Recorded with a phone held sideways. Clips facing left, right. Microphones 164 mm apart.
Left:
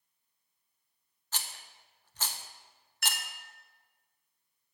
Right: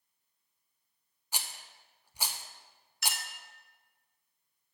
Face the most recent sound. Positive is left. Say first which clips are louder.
# even
turn(degrees=55)  # may be behind; listen again after turning